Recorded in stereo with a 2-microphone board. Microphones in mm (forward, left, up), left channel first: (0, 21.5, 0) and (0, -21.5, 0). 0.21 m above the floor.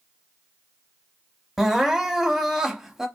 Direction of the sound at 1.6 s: 10° right (ahead or behind).